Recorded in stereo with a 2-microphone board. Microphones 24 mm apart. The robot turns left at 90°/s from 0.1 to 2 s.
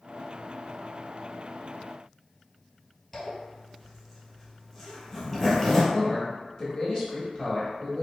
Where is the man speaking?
25° left (ahead or behind), 1.0 m.